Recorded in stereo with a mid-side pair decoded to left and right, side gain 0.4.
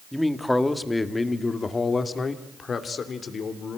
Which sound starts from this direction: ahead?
A man speaking, at 0.1 s.